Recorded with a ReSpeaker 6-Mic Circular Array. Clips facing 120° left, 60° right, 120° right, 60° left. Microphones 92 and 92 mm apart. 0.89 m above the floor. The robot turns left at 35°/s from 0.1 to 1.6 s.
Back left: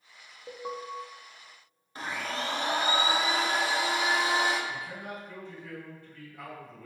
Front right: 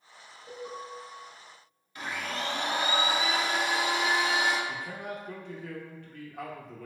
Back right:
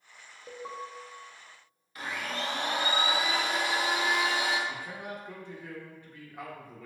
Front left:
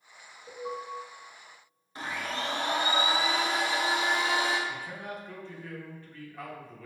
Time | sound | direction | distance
0.5 | an alarm | straight behind | 0.6 m
1.9 | a blender | 95° left | 0.7 m
4.7 | a man speaking | 45° right | 0.8 m